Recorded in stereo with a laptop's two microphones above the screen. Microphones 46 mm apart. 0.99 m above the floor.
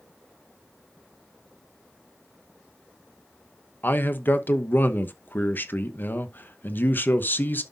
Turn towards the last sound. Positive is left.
turn(degrees=45)  # may be behind; listen again after turning